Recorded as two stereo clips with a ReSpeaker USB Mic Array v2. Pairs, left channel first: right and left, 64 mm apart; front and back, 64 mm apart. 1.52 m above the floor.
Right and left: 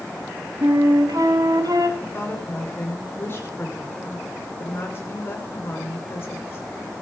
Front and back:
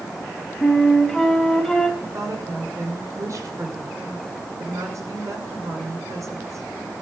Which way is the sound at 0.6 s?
90° left.